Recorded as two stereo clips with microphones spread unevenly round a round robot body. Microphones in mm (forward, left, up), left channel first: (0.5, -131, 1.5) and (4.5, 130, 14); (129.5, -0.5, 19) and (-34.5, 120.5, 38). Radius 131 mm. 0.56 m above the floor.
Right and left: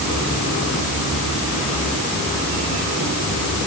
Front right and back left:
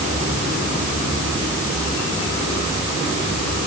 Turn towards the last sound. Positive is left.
No sound to turn to.